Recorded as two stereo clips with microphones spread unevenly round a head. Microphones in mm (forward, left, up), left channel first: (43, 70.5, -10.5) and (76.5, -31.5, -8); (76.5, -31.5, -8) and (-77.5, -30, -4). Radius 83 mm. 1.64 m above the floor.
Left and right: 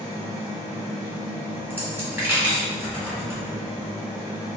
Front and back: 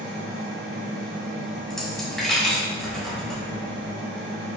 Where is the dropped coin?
85° right, 1.6 m.